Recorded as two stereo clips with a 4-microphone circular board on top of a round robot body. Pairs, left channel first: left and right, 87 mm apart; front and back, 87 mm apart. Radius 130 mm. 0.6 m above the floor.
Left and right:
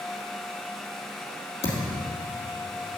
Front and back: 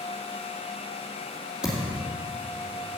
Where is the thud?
100° left, 2.5 m.